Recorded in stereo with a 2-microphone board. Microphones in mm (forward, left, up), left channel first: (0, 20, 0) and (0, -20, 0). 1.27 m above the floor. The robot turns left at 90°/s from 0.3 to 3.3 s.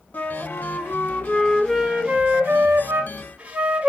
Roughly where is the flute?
Behind left.